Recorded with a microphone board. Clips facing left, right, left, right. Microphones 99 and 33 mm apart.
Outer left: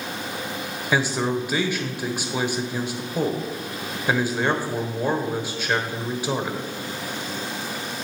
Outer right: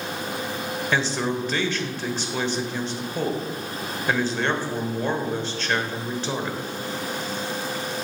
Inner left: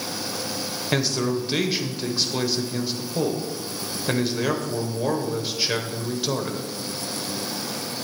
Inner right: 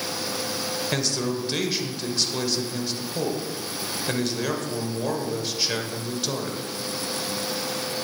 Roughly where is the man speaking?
Centre.